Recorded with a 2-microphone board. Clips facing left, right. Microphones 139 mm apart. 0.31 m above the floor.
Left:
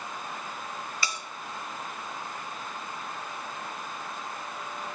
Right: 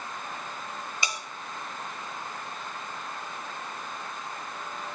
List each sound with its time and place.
1.0 s a bell: 20° right (ahead or behind), 1.1 m